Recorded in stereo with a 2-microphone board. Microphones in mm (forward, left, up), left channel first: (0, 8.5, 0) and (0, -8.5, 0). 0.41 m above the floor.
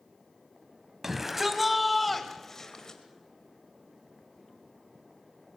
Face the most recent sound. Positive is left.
turn(degrees=35)  # may be behind; listen again after turning